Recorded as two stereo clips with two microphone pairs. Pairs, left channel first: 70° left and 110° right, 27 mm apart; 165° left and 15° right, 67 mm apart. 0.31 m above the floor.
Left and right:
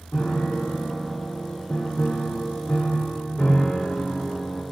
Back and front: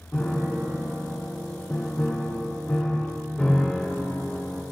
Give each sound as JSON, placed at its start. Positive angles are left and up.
{"t": 0.1, "sound": "a piano", "azimuth_deg": 95, "distance_m": 1.9}